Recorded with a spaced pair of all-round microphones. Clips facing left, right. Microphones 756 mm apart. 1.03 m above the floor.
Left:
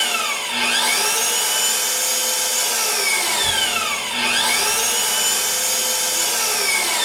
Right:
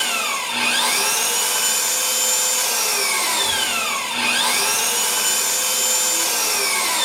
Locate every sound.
0.0 s an engine running: 15° right (ahead or behind), 2.5 m
3.3 s a child speaking: 30° left (ahead or behind), 0.6 m